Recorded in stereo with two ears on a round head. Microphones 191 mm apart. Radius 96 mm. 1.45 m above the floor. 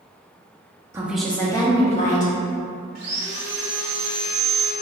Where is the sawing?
50° right (ahead or behind), 1.1 m.